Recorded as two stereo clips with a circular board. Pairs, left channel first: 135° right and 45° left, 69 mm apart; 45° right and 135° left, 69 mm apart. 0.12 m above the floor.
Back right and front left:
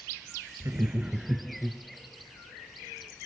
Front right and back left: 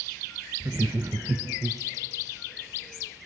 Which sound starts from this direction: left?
Laughter, at 0.6 s.